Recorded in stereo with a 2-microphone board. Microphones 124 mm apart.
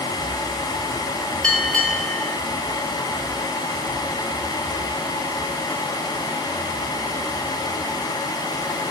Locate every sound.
1.4 s a bell: 10° left (ahead or behind), 1.4 m